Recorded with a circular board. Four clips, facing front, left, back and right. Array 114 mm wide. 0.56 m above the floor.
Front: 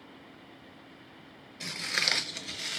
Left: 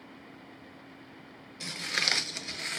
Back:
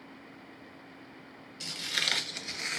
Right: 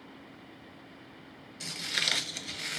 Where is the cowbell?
I don't hear a cowbell.